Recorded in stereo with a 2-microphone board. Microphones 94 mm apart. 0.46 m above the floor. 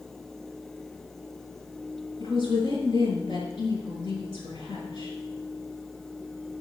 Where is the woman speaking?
65° left (ahead or behind), 6.5 m.